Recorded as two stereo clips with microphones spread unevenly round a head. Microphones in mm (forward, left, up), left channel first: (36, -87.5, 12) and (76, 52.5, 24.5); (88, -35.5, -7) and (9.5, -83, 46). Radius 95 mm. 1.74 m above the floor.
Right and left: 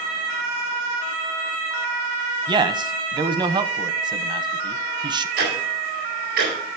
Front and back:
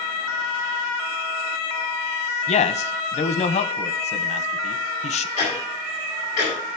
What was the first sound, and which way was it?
A man speaking, 20° left.